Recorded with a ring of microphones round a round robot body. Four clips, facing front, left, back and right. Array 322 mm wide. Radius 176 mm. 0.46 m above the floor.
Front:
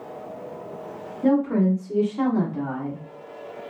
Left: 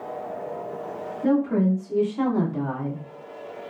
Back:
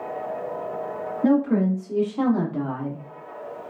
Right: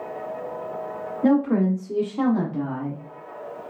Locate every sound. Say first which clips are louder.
1.2 s a woman speaking: right 2 dB, even; 95° right, 1.6 m; by 3.0 s 160° left, 1.3 m